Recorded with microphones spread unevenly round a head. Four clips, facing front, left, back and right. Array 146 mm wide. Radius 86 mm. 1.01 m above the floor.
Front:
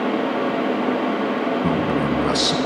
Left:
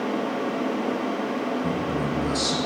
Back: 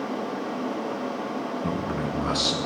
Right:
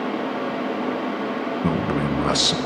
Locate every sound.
1.6 s a man speaking: 65° right, 0.6 m